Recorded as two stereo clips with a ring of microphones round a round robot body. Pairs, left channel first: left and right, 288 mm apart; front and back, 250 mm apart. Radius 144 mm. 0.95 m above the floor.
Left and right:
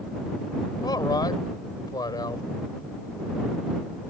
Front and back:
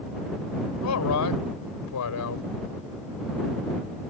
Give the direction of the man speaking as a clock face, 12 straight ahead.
12 o'clock.